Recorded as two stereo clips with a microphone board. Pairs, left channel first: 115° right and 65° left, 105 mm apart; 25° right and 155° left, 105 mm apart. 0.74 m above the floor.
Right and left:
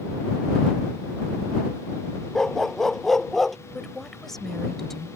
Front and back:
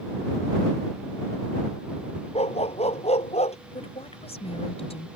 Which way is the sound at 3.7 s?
25° right.